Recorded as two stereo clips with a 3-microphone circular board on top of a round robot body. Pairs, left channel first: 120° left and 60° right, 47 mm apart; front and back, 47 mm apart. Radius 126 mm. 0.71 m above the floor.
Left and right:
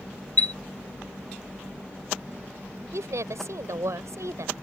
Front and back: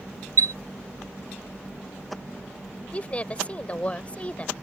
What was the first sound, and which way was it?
A chime, 175° right.